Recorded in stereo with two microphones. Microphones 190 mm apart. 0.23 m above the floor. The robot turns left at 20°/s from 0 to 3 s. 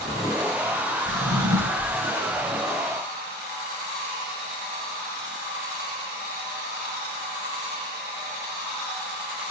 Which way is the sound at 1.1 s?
20° right (ahead or behind).